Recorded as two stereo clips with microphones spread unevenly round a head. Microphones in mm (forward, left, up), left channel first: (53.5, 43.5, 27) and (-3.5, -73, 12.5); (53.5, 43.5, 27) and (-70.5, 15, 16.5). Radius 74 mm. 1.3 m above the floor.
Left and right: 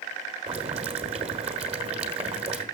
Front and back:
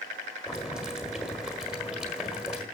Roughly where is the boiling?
Right.